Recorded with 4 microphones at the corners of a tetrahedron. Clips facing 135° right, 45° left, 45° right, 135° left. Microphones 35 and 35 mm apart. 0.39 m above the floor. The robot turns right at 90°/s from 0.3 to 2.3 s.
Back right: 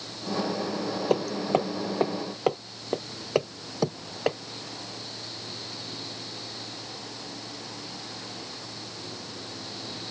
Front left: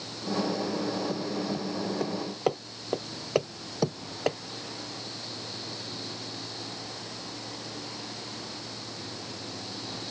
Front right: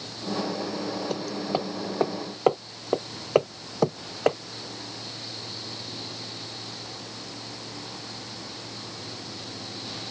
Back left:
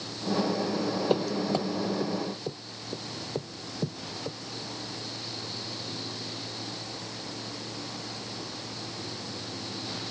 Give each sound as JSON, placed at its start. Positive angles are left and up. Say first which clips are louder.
{"t": 1.1, "sound": "hammering", "louder": "back right 6 dB, back left 3 dB", "azimuth_deg": -160}